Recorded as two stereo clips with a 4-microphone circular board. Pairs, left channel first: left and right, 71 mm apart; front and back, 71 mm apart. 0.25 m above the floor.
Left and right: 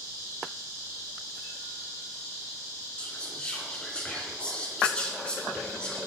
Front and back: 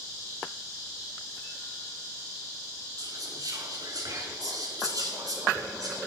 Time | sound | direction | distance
3.0 | whispering | 165° left | 2.5 m